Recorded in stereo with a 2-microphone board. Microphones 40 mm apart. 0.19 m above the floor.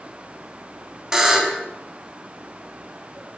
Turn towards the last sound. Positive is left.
turn(degrees=-15)  # may be behind; listen again after turning